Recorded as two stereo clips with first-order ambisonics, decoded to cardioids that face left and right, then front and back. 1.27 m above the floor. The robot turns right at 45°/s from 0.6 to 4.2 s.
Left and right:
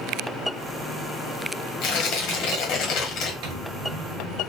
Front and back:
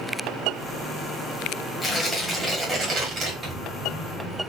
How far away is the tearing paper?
About 1.5 m.